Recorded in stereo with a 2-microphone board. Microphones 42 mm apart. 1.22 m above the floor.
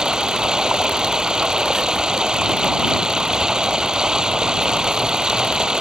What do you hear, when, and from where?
0.0 s running water: 20° right (ahead or behind)